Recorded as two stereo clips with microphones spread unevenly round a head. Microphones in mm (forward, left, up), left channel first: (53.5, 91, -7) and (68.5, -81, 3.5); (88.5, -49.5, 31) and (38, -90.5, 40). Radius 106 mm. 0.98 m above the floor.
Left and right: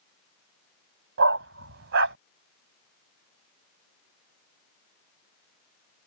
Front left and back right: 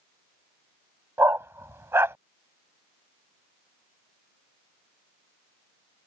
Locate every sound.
1.2 s a dog barking: 95° right